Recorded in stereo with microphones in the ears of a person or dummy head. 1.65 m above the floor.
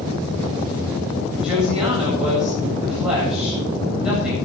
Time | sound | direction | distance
1.4 | a woman speaking | 5° right (ahead or behind) | 8.5 m